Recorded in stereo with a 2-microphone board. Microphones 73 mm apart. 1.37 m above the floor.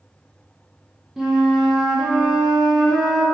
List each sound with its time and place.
1.2 s a flute: 5° right (ahead or behind), 0.5 m